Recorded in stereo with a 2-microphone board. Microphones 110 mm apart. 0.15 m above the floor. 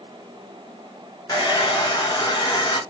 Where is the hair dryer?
30° left (ahead or behind), 2 m.